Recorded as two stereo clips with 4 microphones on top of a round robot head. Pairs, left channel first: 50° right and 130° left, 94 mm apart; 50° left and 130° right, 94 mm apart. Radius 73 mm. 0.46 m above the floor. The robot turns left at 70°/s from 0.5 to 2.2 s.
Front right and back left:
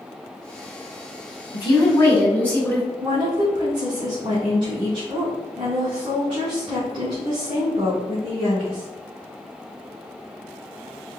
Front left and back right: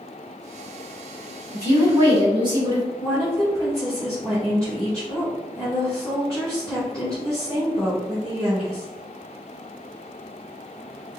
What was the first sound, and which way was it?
A woman speaking, 65° right.